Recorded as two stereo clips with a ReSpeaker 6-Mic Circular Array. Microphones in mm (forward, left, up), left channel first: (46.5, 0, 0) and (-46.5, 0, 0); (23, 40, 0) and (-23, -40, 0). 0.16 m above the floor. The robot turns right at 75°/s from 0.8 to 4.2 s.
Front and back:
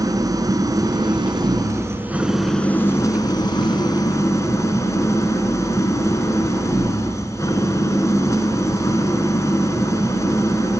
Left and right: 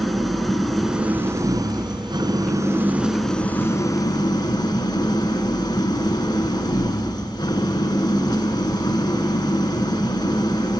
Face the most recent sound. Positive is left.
turn(degrees=45)